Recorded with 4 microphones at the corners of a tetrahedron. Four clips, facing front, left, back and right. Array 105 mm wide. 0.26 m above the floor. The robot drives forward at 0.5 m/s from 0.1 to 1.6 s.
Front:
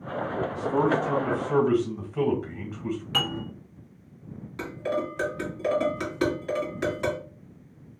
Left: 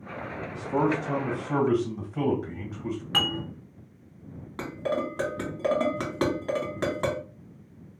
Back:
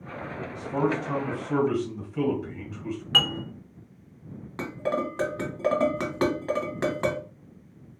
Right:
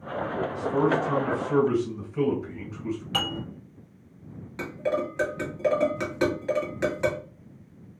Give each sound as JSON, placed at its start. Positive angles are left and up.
{"t": 0.5, "sound": "a man speaking", "azimuth_deg": 65, "distance_m": 1.9}
{"t": 3.1, "sound": "dishes clattering", "azimuth_deg": 135, "distance_m": 2.0}
{"t": 4.6, "sound": "dishes clattering", "azimuth_deg": 150, "distance_m": 1.3}